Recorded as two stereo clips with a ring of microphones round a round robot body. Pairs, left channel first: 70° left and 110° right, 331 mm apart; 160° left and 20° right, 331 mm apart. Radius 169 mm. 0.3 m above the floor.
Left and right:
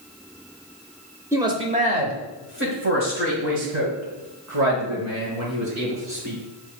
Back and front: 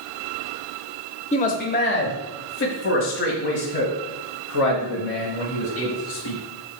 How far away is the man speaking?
About 0.9 m.